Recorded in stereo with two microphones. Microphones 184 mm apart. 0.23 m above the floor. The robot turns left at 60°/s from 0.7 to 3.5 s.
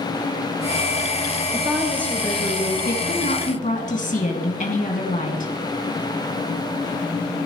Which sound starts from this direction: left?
A woman speaking, at 2.9 s.